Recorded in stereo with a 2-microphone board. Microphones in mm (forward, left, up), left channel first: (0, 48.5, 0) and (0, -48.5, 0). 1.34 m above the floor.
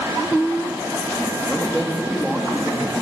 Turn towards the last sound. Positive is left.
turn(degrees=-5)  # may be behind; listen again after turning